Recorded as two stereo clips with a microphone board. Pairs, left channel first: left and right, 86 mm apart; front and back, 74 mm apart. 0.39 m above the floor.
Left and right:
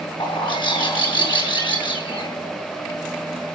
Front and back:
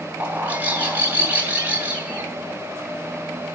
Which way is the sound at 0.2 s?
115° left.